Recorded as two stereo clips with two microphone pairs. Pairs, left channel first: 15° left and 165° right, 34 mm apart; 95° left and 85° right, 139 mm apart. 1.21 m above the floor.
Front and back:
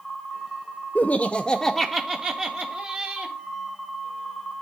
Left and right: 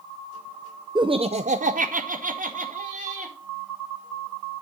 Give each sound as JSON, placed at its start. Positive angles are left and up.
{"t": 0.9, "sound": "laughter", "azimuth_deg": -20, "distance_m": 0.7}